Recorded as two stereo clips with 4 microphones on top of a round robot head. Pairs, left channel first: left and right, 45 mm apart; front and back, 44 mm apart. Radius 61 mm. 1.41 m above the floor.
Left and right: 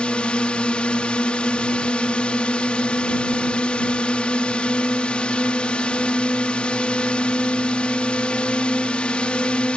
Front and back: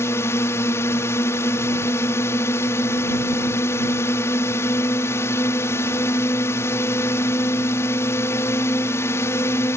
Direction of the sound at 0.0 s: 25° left.